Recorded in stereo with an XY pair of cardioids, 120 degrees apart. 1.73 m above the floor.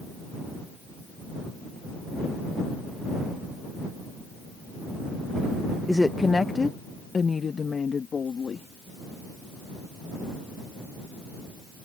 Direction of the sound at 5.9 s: Straight ahead.